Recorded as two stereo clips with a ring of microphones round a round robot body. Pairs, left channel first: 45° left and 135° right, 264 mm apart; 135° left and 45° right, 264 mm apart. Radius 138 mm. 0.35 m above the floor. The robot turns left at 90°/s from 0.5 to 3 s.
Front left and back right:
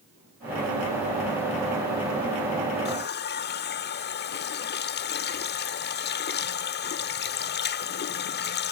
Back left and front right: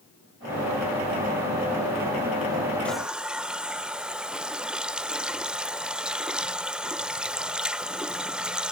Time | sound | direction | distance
2.9 | a running tap | 55° left | ?